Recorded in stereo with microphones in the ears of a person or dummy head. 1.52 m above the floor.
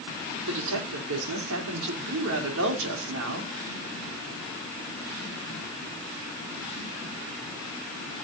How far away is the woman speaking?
About 4 m.